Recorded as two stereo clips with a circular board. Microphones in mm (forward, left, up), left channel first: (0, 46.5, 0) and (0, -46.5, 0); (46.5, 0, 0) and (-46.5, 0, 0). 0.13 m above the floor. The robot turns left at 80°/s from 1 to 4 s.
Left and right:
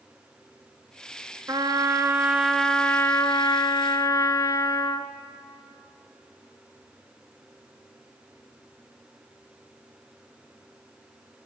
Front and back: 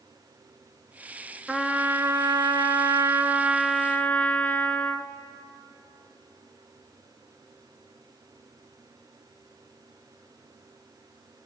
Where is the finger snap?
I don't hear a finger snap.